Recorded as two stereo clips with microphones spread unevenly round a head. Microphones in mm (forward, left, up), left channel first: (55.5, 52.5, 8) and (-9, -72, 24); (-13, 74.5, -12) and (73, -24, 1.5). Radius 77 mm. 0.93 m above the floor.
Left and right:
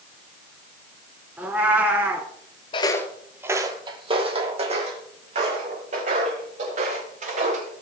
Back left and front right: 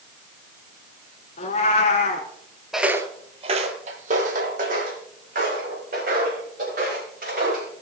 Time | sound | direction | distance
1.4 | a cat meowing | 170° left | 1.2 m
2.7 | footsteps | 30° left | 1.0 m